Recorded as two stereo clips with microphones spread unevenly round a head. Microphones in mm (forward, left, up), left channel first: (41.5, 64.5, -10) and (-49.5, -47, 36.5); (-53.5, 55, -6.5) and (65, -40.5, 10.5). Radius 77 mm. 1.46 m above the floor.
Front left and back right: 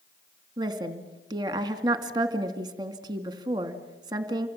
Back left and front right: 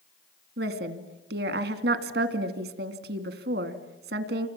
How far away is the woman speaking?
About 2.5 m.